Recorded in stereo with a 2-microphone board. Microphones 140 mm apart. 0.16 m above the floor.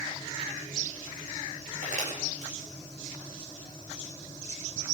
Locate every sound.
1.8 s crumpling: 75° right (ahead or behind), 8.5 m